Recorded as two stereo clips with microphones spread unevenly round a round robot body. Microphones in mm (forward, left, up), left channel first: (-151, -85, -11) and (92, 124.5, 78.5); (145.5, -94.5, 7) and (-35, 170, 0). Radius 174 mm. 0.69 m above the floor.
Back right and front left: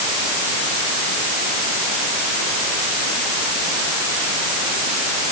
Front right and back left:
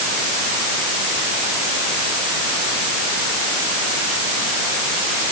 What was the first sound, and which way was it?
Only background noise.